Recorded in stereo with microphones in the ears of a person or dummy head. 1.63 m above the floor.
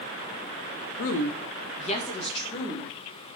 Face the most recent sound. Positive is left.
turn(degrees=20)  # may be behind; listen again after turning